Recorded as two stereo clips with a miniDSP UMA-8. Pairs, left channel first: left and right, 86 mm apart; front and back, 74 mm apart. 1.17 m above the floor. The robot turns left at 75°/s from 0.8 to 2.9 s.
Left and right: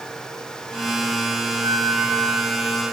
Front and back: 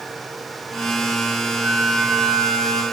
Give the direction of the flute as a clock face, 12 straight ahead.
4 o'clock.